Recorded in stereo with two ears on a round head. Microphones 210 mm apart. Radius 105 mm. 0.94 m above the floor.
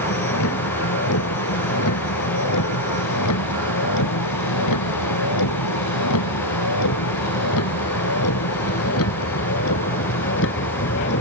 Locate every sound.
0.0 s a vehicle: 60° left (ahead or behind); by 11.2 s 50° left (ahead or behind)